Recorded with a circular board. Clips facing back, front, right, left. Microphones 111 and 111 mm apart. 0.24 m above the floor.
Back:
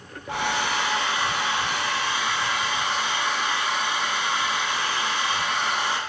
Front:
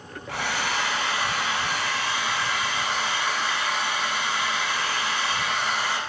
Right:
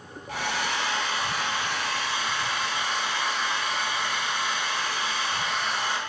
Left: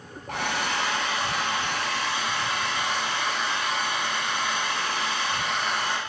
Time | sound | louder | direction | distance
0.3 | a hair dryer | back 3 dB, left 1 dB | 115° left | 0.6 m